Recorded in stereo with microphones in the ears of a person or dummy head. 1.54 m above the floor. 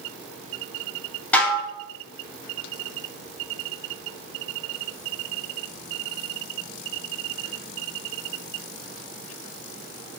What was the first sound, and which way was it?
Dishes clattering, 10° left (ahead or behind).